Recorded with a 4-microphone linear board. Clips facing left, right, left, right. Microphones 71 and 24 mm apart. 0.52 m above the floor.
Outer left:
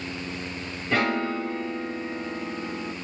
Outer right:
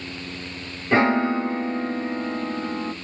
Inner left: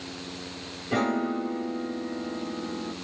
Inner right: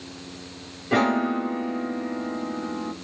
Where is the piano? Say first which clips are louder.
Outer right 6 dB, inner right 5 dB; 30° right (ahead or behind), 0.6 m.